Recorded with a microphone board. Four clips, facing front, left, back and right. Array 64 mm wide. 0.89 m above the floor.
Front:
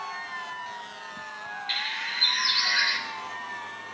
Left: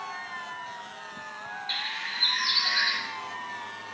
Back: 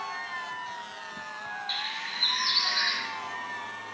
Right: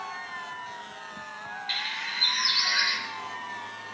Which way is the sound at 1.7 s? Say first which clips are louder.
Right 2 dB, front 3 dB; 35° right.